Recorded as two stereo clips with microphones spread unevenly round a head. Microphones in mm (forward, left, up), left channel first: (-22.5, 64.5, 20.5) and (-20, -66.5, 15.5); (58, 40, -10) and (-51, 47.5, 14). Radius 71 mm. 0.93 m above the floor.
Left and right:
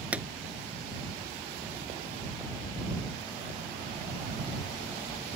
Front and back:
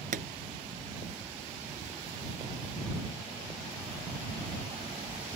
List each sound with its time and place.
0.1 s a pop: 170° right